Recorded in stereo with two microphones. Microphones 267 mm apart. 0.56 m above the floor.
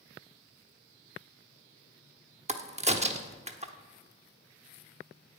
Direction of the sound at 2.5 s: 25° right (ahead or behind).